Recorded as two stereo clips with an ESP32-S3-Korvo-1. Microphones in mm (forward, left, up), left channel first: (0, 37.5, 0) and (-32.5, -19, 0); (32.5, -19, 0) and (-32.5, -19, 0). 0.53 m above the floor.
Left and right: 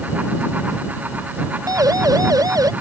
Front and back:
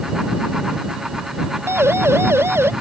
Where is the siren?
135° right; by 2.7 s 130° right.